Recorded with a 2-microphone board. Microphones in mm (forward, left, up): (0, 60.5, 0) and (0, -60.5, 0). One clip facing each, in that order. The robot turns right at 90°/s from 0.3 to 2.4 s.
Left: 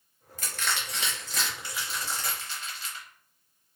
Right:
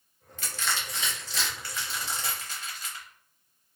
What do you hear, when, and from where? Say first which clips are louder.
0.4 s crushing: even; 40° left (ahead or behind), 0.9 m; by 3.0 s 40° right (ahead or behind), 0.9 m